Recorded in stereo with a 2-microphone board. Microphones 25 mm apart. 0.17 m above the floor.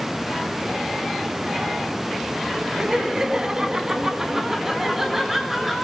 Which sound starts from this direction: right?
Laughter, at 2.8 s.